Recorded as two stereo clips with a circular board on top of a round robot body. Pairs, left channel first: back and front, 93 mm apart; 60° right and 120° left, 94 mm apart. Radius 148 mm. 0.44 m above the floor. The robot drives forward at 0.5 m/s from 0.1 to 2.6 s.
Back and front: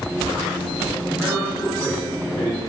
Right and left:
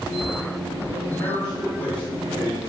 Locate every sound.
1.1 s a man speaking: 115° right, 3.5 m; by 2.6 s 130° right, 3.5 m